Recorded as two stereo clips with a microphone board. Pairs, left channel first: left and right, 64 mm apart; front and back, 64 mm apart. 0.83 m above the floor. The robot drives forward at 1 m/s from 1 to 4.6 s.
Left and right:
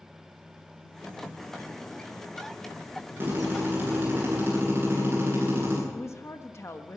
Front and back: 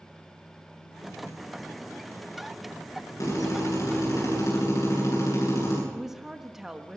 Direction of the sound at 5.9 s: 100° left.